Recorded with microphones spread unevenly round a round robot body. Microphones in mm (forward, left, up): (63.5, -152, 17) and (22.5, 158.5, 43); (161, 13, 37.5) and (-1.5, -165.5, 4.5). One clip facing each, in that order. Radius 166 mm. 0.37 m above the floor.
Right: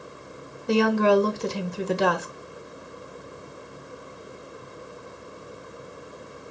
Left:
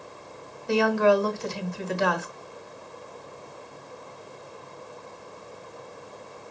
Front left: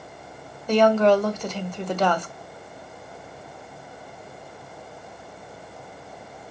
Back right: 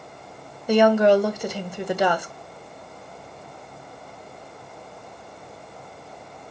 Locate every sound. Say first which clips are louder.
0.7 s a woman speaking: right 2 dB, back right 1 dB; 65° right, 1.2 m